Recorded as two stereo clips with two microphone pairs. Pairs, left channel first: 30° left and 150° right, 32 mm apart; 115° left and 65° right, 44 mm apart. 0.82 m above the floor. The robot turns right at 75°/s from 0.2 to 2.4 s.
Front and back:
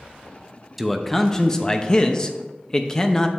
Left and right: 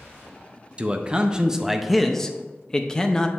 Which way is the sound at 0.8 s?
60° right.